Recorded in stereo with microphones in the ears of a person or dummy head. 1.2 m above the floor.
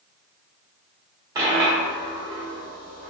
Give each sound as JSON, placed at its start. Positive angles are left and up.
{"t": 1.4, "sound": "a dropped coin", "side_deg": -20, "distance_m": 0.8}